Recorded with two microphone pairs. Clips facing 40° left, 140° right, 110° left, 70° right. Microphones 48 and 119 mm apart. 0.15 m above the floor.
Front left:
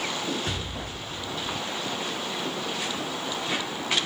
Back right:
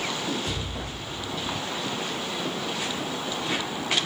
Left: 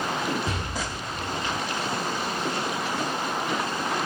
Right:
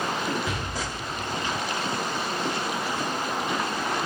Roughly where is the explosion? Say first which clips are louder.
Even, even; ahead left.